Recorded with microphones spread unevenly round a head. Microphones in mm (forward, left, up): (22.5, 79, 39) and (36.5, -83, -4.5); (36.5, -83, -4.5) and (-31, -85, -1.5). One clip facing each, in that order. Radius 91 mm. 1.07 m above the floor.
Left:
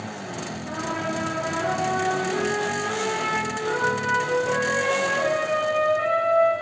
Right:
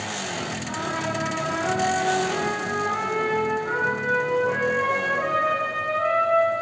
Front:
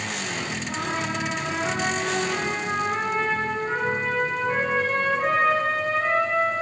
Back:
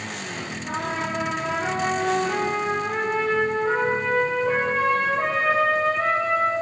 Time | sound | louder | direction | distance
0.7 | a trumpet | left 2 dB, back 3 dB | 145° left | 7.5 m